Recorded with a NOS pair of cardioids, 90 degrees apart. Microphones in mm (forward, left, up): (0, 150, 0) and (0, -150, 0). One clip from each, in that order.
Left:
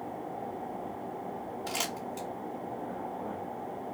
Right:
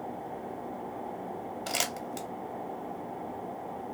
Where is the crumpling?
55° right, 1.3 m.